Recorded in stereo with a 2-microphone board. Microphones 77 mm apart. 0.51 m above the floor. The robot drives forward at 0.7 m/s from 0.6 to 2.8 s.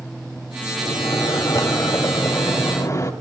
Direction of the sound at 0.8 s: 60° left (ahead or behind).